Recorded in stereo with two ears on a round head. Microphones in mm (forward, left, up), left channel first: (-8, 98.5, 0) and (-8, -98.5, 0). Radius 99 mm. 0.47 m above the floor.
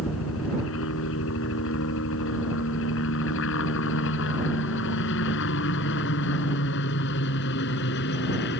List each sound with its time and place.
0.0 s a helicopter: 65° left (ahead or behind); by 8.6 s 50° left (ahead or behind)